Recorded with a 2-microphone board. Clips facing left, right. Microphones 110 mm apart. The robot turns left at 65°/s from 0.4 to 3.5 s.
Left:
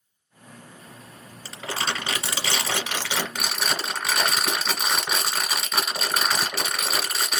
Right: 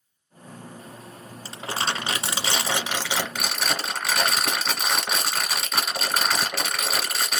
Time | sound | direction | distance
1.4 | crumpling | 50° right | 1.0 m